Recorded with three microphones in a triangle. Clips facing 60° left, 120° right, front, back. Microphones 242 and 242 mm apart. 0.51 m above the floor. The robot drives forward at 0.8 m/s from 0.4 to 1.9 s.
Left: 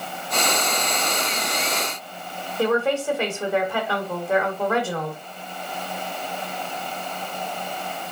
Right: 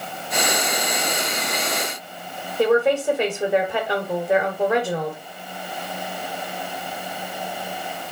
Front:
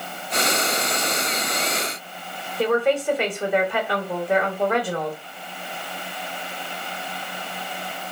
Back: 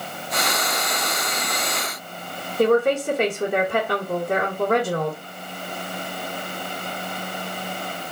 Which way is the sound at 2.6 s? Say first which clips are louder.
Right 4 dB, back 3 dB; 175° left.